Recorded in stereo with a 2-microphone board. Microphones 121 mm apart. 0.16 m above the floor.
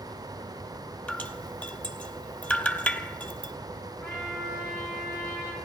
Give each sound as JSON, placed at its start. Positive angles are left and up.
{"t": 1.1, "sound": "dripping", "side_deg": 15, "distance_m": 0.9}
{"t": 4.0, "sound": "a trumpet", "side_deg": 20, "distance_m": 7.0}